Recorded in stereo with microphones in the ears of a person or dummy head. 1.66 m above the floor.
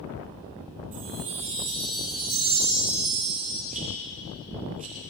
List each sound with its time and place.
0.9 s a chime: 45° right (ahead or behind), 6 m
3.7 s a rattle: 40° right (ahead or behind), 7 m